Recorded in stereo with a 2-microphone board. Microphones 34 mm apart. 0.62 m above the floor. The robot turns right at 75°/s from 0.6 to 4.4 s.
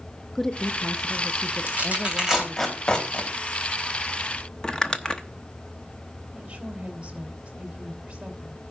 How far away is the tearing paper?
About 3 m.